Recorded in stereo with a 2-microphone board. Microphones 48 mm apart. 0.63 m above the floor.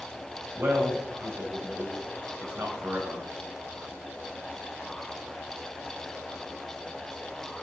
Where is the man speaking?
50° right (ahead or behind), 3.5 m.